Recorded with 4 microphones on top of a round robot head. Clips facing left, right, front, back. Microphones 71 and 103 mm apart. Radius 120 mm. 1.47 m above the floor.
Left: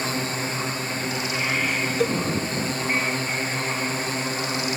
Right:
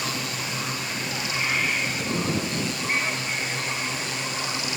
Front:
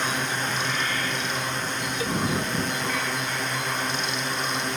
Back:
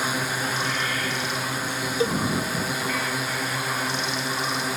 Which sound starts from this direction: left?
A drone, at 0.0 s.